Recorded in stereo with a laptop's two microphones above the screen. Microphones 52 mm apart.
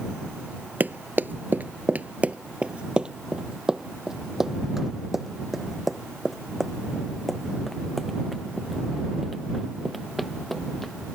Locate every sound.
0.8 s running footsteps: 35° right (ahead or behind); by 10.9 s 5° left (ahead or behind)